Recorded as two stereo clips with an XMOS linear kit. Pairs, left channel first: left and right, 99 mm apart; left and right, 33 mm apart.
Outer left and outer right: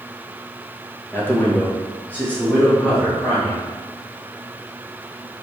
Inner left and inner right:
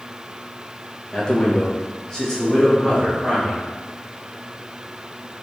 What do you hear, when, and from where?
1.1 s a man speaking: 20° left (ahead or behind), 0.7 m; by 3.7 s 5° left (ahead or behind), 1.6 m